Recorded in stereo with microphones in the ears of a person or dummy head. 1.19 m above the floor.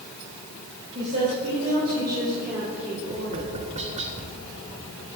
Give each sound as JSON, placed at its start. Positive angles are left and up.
{"t": 0.9, "sound": "a woman speaking", "side_deg": -35, "distance_m": 4.5}
{"t": 3.1, "sound": "tapping", "side_deg": -35, "distance_m": 0.9}